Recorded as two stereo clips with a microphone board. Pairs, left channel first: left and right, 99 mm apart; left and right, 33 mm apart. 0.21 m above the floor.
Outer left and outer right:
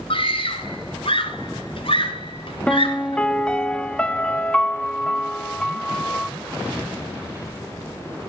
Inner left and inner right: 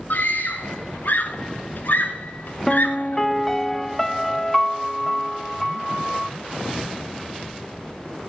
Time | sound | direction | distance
0.1 | a scream | 65° left (ahead or behind) | 2.5 m
2.7 | a piano | 10° left (ahead or behind) | 0.5 m